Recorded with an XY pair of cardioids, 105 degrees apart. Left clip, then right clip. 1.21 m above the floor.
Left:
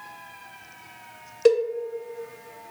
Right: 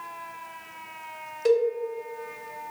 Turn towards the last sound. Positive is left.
turn(degrees=55)